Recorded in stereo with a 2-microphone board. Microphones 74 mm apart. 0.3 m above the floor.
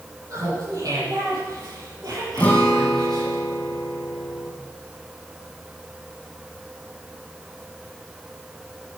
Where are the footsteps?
No footsteps in this recording.